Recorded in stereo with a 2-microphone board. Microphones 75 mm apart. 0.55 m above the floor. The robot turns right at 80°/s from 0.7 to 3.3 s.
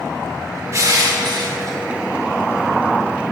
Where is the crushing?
135° right, 1.0 m; by 1.8 s 50° right, 1.0 m.